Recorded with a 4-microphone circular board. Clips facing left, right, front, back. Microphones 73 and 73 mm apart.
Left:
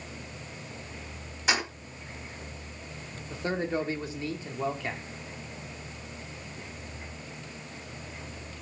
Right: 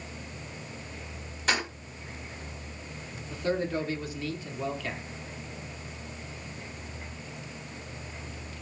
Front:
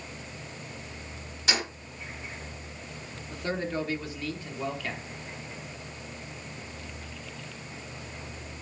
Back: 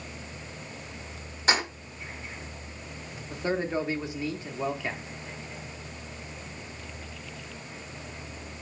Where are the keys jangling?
170° left, 0.9 m.